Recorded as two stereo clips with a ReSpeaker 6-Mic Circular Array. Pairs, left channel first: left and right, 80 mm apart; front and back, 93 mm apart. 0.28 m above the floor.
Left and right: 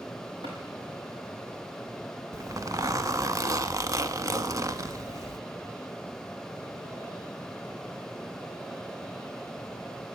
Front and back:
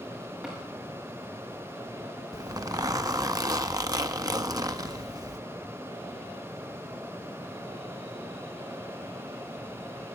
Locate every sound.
0.4 s tapping: 100° right, 8 m
2.3 s a zipper: 135° right, 0.7 m